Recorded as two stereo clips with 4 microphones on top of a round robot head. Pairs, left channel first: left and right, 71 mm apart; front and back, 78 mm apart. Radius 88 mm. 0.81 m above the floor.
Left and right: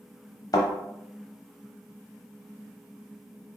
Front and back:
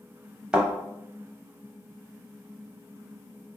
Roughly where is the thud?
Left.